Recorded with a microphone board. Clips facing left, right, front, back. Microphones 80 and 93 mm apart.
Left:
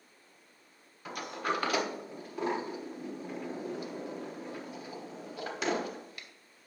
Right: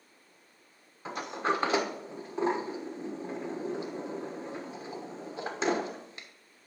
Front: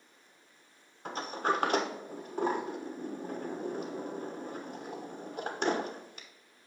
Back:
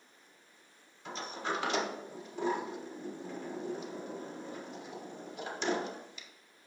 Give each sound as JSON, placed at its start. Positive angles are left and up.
{"t": 1.1, "sound": "a sliding door", "azimuth_deg": -30, "distance_m": 1.1}